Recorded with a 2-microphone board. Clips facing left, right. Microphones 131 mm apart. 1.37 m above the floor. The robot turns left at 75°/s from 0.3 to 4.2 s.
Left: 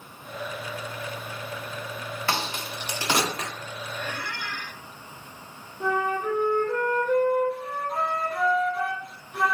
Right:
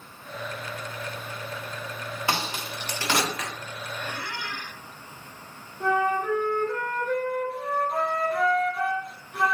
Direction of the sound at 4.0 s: 15° right (ahead or behind).